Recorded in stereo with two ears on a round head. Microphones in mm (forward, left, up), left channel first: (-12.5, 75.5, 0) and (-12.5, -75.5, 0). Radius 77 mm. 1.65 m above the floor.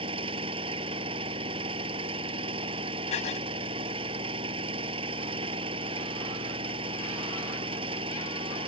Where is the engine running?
30° right (ahead or behind).